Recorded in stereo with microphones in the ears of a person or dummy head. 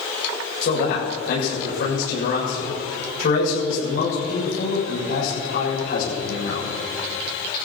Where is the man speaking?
60° left (ahead or behind), 6.5 m.